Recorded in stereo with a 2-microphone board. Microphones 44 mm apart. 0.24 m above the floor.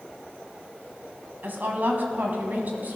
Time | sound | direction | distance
1.4 | a woman speaking | 50° right (ahead or behind) | 1.4 m